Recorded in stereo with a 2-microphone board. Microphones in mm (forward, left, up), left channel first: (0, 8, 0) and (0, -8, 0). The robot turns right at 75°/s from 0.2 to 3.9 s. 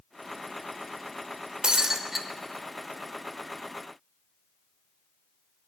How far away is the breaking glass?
About 1.0 m.